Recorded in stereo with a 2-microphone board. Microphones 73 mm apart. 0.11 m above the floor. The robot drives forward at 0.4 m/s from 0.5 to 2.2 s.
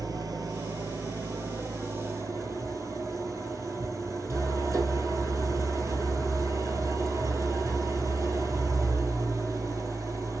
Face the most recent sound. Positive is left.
turn(degrees=-45)  # may be behind; listen again after turning